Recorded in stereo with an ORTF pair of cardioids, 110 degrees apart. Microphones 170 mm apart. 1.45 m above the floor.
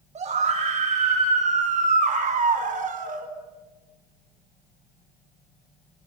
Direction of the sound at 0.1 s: 40° right.